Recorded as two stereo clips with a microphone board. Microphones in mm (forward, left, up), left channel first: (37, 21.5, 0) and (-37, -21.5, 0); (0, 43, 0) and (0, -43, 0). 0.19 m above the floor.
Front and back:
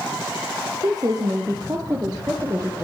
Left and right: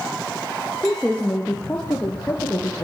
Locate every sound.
0.8 s a woman speaking: 175° left, 4 m; by 2.9 s 145° left, 5.5 m